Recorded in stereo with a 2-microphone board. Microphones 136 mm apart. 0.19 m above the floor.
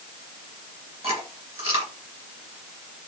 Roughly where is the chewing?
Right.